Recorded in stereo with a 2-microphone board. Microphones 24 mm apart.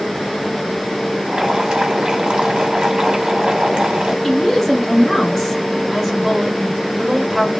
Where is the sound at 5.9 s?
5° right (ahead or behind), 2 m.